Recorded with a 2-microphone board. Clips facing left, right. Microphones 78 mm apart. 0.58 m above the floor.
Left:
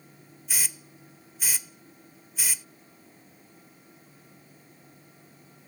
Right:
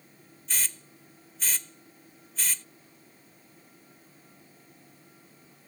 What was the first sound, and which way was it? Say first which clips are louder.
A hiss: even; 10° left (ahead or behind).